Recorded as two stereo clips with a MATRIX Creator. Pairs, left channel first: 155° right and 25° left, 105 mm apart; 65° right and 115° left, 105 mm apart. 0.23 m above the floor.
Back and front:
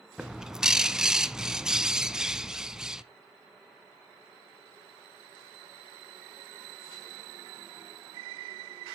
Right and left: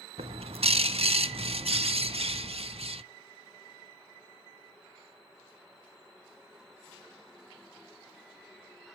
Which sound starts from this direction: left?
A bird, at 0.2 s.